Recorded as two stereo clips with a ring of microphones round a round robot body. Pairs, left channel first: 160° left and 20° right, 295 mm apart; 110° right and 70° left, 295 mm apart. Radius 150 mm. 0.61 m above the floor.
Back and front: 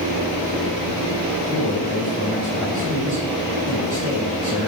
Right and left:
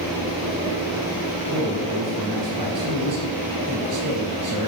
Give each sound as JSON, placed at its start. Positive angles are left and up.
{"t": 1.5, "sound": "a man speaking", "azimuth_deg": 45, "distance_m": 2.0}